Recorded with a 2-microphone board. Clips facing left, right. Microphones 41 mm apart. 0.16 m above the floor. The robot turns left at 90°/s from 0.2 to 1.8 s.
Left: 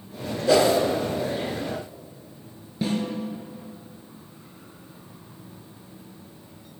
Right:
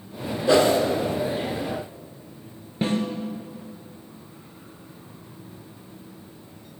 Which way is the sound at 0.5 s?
20° right (ahead or behind).